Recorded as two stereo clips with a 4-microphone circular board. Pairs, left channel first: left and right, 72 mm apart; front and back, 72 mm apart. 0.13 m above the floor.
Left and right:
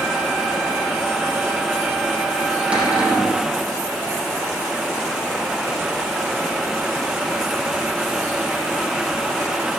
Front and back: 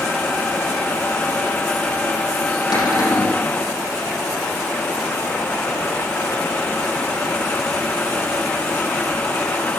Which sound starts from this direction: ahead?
A cupboard door, at 2.7 s.